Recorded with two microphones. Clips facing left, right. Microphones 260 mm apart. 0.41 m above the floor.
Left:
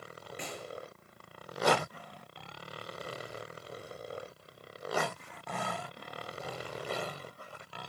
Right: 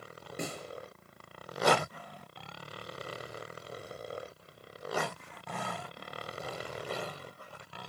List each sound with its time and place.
0.4 s a snare drum: 45° right (ahead or behind), 8.5 m